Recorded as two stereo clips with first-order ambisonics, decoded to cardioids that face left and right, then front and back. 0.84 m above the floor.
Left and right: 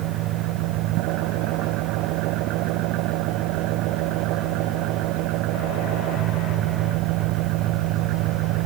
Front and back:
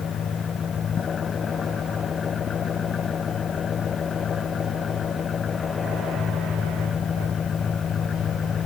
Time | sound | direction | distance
0.0 | an engine running | 65° right | ?